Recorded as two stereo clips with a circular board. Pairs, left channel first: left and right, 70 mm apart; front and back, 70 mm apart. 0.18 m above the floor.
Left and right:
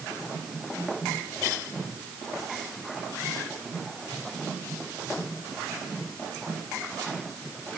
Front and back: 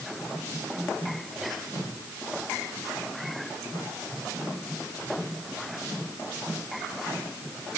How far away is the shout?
No shout in this recording.